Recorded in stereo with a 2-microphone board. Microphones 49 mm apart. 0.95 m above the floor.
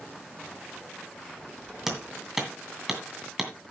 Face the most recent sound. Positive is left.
turn(degrees=-10)  # may be behind; listen again after turning